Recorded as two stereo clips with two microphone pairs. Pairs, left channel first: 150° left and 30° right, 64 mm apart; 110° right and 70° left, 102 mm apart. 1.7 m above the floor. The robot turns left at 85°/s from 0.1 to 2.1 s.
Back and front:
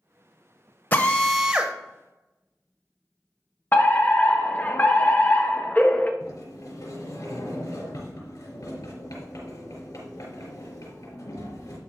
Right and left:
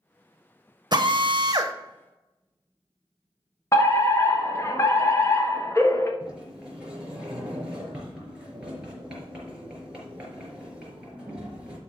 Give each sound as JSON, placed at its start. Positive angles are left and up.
{"t": 0.9, "sound": "a drill", "azimuth_deg": 95, "distance_m": 1.0}
{"t": 3.7, "sound": "a fire alarm", "azimuth_deg": -160, "distance_m": 1.2}
{"t": 6.2, "sound": "a sliding door", "azimuth_deg": 150, "distance_m": 4.5}